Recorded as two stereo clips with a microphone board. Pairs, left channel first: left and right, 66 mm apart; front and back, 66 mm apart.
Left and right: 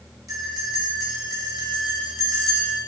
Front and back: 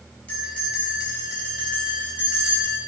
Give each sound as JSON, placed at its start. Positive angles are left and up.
{"t": 0.3, "sound": "a bell", "azimuth_deg": -65, "distance_m": 3.5}